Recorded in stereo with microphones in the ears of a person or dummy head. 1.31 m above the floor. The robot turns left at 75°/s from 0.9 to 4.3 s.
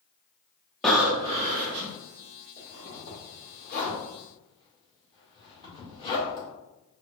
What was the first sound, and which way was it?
Breathing, straight ahead.